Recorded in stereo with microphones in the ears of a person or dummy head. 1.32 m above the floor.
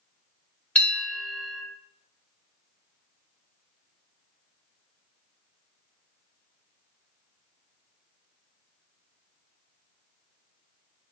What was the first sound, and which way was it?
A bell, 5° left (ahead or behind).